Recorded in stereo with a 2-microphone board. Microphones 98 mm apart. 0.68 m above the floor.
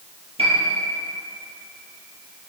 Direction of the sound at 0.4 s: 80° right.